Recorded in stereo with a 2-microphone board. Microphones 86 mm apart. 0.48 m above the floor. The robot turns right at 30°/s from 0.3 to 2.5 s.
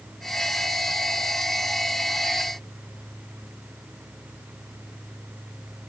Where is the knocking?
No knocking in this recording.